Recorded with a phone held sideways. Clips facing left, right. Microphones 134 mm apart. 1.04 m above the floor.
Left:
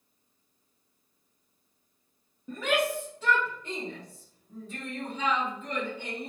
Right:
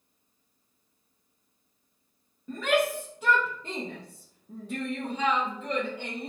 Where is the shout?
10° left (ahead or behind), 0.9 m; by 6.3 s 65° right (ahead or behind), 1.4 m.